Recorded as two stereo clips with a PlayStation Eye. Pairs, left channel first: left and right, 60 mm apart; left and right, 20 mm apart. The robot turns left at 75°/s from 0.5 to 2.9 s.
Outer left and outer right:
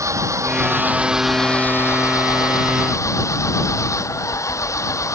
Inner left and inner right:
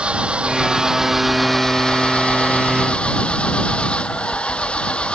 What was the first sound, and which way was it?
An engine running, 120° right.